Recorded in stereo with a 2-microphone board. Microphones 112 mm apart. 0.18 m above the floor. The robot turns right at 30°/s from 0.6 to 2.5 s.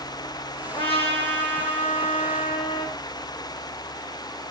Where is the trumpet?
60° left, 6.5 m; by 3.0 s 115° left, 6.5 m.